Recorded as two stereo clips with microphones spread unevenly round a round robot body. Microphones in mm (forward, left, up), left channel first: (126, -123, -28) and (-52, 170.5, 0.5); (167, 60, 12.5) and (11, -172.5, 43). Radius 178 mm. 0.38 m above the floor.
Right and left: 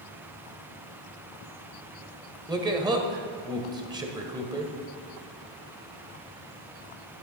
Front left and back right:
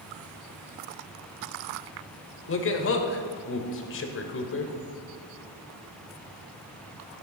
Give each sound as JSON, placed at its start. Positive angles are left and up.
{"t": 2.5, "sound": "a man speaking", "azimuth_deg": 40, "distance_m": 1.2}